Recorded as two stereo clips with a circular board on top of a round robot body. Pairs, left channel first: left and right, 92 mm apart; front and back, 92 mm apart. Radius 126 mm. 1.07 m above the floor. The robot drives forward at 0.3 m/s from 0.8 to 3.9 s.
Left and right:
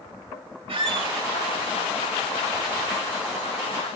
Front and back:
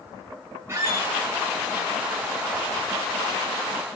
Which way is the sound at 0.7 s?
115° right.